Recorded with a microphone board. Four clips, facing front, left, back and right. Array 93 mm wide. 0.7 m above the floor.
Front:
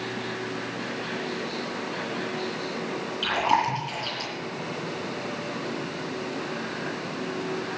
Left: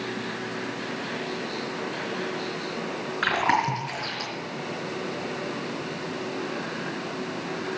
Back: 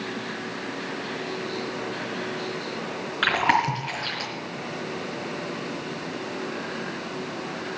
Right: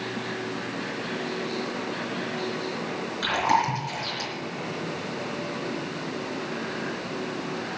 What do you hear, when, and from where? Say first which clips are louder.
3.2 s chewing: even, back 2 dB; 145° left, 4 m